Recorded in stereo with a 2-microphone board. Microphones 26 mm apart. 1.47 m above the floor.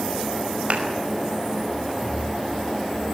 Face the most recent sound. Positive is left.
turn(degrees=-60)  # may be behind; listen again after turning